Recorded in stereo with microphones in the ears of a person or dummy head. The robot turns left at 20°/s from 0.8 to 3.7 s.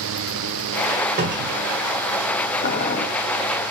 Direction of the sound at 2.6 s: 55° left (ahead or behind).